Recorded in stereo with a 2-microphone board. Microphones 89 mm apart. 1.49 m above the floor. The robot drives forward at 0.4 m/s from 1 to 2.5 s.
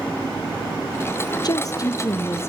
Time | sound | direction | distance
1.4 | a woman speaking | 45° left (ahead or behind) | 0.6 m